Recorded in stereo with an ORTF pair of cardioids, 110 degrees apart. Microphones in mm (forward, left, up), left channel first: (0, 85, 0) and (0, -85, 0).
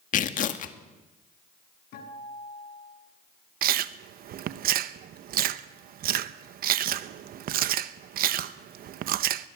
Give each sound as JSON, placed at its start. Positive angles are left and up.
{"t": 0.1, "sound": "tearing paper", "azimuth_deg": 50, "distance_m": 1.8}
{"t": 1.9, "sound": "a guitar", "azimuth_deg": 70, "distance_m": 9.5}
{"t": 3.6, "sound": "chewing", "azimuth_deg": -65, "distance_m": 1.0}